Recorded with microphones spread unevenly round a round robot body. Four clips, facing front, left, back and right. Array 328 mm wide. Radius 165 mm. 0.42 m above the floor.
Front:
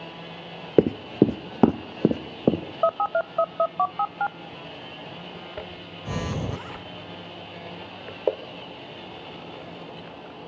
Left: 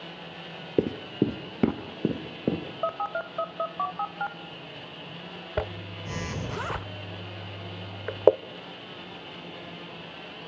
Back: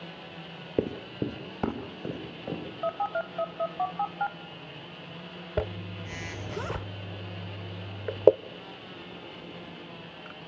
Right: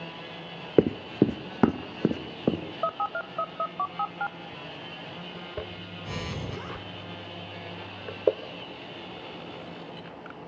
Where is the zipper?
155° left, 0.6 m.